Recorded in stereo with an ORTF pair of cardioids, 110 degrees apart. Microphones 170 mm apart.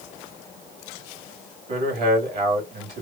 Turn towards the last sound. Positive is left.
turn(degrees=-60)